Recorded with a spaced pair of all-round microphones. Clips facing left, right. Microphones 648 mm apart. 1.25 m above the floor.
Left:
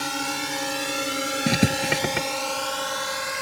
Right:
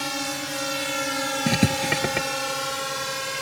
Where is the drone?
5° right (ahead or behind); by 3.4 s 60° right (ahead or behind).